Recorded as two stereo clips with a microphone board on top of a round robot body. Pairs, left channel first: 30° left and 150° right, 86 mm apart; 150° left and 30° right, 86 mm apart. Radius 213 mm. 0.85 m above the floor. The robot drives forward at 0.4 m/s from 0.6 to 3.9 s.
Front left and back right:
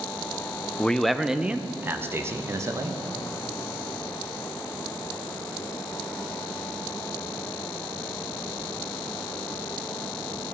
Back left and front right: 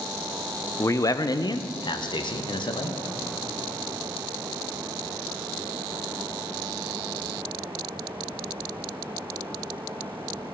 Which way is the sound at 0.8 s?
105° left.